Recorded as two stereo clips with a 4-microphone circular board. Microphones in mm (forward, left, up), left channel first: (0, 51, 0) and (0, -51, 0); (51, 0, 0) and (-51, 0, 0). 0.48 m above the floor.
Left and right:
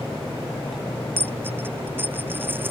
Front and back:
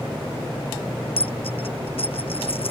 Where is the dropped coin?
20° right.